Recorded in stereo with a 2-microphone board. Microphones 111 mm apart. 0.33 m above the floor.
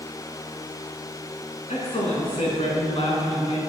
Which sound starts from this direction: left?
A man speaking, at 1.7 s.